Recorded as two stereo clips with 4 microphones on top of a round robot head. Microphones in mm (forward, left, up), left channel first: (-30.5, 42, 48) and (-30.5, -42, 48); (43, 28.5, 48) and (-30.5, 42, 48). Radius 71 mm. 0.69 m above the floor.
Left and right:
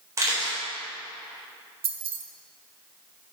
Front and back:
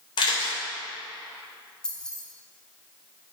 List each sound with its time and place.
0.2 s a camera shutter: 30° right, 3.5 m
1.8 s keys jangling: 90° right, 1.0 m